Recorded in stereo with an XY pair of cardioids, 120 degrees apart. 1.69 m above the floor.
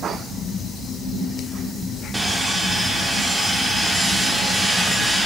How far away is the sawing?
About 0.9 m.